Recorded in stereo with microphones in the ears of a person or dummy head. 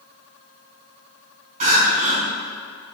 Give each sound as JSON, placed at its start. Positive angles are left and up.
{"t": 1.6, "sound": "crying", "side_deg": -35, "distance_m": 2.5}